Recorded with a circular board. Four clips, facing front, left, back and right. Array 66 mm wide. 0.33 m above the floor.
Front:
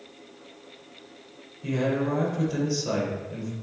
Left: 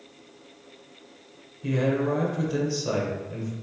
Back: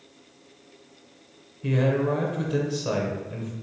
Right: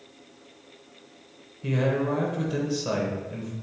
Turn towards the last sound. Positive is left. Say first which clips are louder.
# left 1 dB, back 2 dB
turn(degrees=-150)